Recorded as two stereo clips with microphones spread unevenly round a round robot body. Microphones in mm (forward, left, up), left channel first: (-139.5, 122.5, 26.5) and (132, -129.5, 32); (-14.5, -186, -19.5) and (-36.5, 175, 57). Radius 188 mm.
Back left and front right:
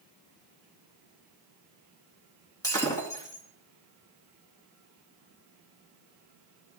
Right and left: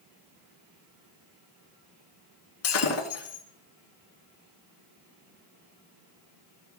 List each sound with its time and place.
2.6 s breaking glass: 140° right, 2.5 m